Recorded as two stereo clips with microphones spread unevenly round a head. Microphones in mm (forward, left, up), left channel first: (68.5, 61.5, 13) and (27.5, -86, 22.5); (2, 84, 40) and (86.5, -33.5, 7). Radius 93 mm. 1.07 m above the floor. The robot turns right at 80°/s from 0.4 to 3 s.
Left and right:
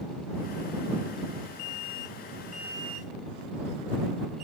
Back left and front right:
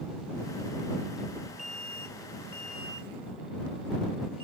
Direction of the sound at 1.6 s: 90° left.